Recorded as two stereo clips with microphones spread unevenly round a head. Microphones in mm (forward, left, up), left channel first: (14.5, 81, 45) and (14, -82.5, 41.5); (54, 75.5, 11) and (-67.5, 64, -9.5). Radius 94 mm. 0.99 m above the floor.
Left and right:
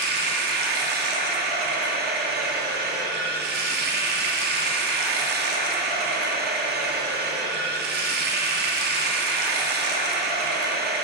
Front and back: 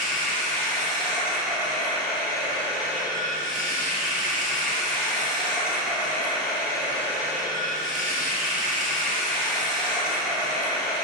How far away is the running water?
About 0.7 m.